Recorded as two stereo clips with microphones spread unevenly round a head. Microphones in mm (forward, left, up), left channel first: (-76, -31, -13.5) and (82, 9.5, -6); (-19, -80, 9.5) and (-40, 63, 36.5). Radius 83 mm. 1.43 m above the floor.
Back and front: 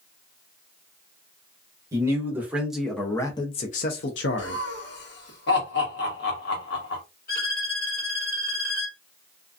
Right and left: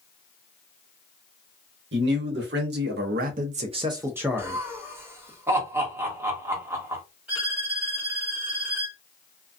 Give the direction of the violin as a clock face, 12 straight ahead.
6 o'clock.